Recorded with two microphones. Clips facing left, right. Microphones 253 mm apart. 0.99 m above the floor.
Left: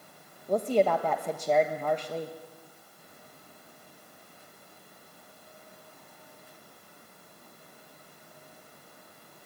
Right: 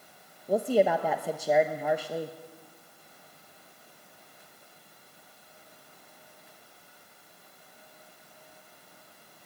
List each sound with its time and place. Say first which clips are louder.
0.5 s a woman speaking: right 1 dB; 10° right (ahead or behind), 1.2 m